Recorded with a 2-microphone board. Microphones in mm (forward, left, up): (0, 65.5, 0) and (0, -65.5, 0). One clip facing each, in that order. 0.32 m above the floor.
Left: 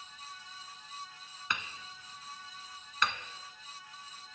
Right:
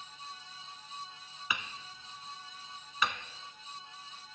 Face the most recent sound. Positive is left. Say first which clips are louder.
# even
turn(degrees=-5)  # may be behind; listen again after turning